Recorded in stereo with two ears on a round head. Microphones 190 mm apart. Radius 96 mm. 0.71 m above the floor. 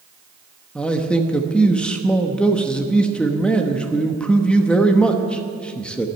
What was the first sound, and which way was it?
A man speaking, 5° left (ahead or behind).